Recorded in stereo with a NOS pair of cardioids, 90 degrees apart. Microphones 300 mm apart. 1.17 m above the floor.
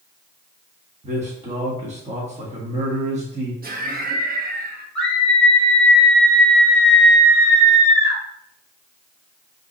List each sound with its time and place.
1.0 s a man speaking: 20° right, 1.6 m
3.6 s laughter: 30° right, 1.3 m
5.0 s a scream: 20° left, 1.6 m